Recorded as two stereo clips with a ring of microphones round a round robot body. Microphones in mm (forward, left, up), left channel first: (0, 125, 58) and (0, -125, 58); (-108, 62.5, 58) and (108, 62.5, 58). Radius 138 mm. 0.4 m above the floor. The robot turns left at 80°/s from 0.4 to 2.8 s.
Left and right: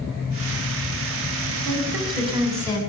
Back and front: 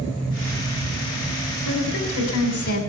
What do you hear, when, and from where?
1.6 s a woman speaking: 110° right, 3.5 m; by 2.8 s 160° left, 3.5 m